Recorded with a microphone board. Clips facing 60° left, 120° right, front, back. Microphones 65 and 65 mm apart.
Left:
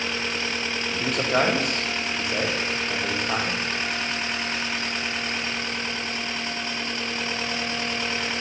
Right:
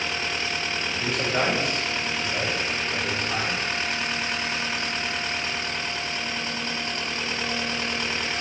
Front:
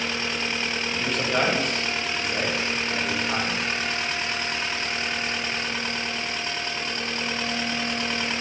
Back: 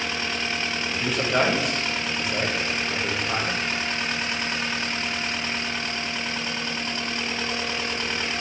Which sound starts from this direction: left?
A man speaking, at 0.9 s.